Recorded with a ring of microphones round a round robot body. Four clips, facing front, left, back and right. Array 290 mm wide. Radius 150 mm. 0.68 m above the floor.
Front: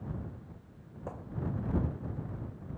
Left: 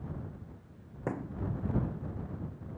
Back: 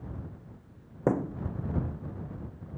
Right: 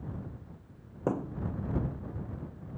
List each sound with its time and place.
1.1 s a thud: 165° right